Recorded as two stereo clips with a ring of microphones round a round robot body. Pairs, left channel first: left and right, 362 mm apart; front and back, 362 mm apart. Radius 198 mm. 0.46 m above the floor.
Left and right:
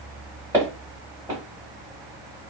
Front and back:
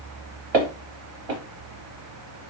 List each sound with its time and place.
0.5 s footsteps: 175° right, 1.7 m